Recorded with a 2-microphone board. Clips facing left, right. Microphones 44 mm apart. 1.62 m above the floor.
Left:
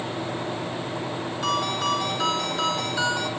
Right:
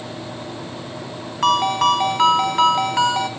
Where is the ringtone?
65° right (ahead or behind), 3.5 m.